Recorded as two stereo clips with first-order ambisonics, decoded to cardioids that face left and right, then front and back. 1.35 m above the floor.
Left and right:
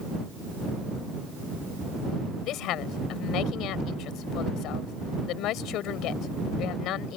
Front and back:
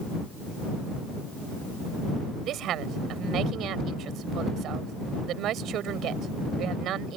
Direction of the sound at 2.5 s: 130° left.